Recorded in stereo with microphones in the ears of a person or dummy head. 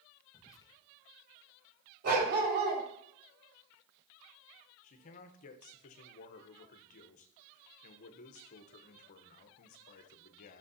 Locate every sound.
0.3 s whispering: 20° left (ahead or behind), 1.5 m
2.0 s a dog barking: 55° right (ahead or behind), 3.5 m
4.8 s a man speaking: 45° left (ahead or behind), 1.0 m